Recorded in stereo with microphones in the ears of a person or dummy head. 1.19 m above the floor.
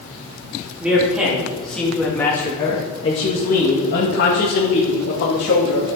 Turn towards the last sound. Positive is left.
turn(degrees=80)